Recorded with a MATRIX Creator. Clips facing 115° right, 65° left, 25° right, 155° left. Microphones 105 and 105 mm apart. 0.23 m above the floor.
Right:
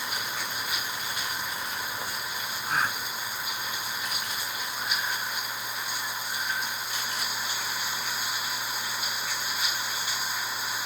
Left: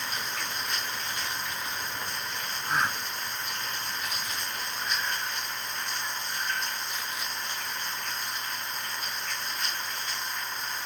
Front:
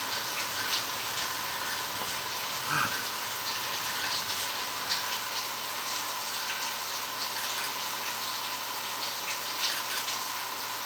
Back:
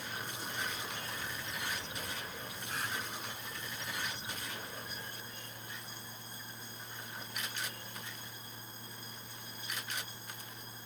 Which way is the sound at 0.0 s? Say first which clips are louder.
Right 1 dB, front 7 dB; 30° right.